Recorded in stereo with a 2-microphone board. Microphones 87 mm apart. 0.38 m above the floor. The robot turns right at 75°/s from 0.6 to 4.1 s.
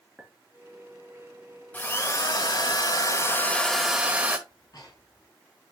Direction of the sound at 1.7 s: 20° left.